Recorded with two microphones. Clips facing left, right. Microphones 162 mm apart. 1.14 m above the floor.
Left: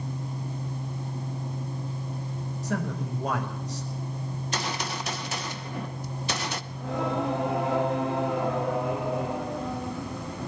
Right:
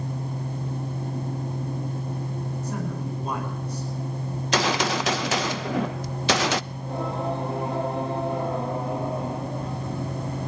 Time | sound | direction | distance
2.6 | a man speaking | 70° left (ahead or behind) | 8.5 m
4.3 | a gunshot | 80° right | 0.7 m
6.7 | singing | 80° left | 8 m